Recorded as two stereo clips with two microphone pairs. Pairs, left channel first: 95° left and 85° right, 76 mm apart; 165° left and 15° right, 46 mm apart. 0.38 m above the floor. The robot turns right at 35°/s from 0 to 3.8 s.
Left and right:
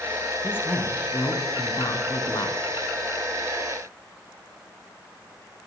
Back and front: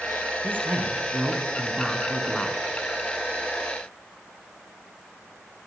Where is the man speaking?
30° left, 5 m; by 2.6 s 105° left, 5 m.